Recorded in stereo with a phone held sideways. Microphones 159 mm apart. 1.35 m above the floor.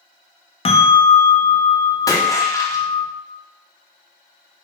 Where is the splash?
20° left (ahead or behind), 0.7 m.